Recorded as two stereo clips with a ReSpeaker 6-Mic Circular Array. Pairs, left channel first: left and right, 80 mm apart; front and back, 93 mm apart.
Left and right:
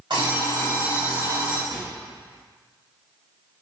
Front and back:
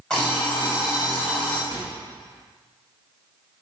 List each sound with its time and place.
0.1 s an alarm clock: 80° right, 3.5 m
1.7 s a microwave: 115° right, 2 m